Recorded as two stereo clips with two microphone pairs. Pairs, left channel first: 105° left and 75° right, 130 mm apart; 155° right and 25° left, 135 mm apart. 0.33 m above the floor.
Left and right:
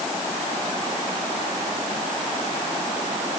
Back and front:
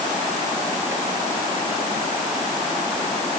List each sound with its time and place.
Only background noise.